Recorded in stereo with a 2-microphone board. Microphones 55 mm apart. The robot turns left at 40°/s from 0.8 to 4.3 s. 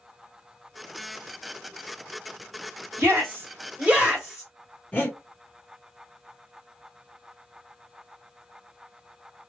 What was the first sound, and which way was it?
A shout, 45° right (ahead or behind).